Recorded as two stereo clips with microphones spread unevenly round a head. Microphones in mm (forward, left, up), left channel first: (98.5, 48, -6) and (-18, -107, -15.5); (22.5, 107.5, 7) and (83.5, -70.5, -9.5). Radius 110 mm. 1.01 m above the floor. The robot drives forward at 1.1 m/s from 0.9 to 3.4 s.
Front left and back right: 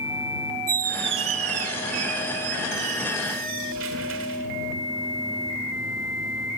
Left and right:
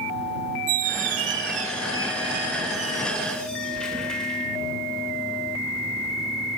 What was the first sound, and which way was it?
A squeak, 80° right.